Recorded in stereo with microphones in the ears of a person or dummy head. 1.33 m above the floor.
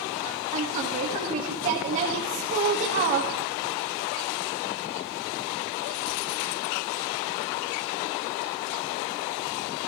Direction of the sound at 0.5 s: 40° right (ahead or behind).